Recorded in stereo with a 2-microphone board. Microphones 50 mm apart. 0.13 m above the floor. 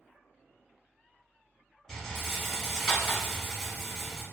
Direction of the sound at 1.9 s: 10° left (ahead or behind).